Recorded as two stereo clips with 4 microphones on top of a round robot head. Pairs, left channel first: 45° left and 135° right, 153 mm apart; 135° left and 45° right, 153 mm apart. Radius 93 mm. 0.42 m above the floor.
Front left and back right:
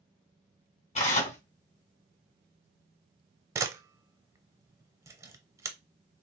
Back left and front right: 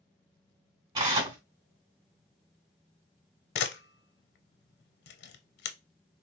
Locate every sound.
0.9 s tearing paper: 10° left, 2.5 m
3.5 s a camera shutter: 155° left, 0.7 m